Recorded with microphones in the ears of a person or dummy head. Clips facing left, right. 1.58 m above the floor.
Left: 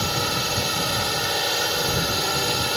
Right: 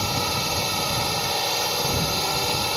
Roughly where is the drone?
Centre.